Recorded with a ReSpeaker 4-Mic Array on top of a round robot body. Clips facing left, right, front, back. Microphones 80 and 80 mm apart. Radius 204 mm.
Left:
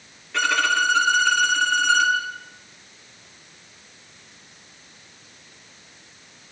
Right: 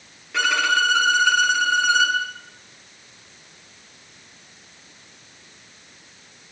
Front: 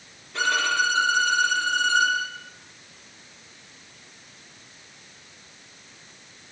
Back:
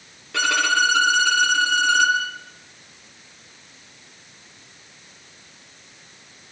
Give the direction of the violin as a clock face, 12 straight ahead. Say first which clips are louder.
Right 1 dB, back 3 dB; 6 o'clock.